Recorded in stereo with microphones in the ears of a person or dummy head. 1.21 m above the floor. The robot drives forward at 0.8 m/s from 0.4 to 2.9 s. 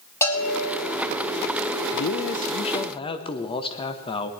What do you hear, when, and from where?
0.2 s a bell: 20° left (ahead or behind), 4 m
1.9 s a man speaking: 50° left (ahead or behind), 0.6 m; by 4.3 s 25° left (ahead or behind), 1.2 m